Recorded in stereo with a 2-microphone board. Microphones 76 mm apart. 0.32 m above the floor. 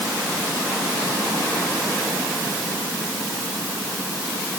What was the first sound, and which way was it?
Only background noise.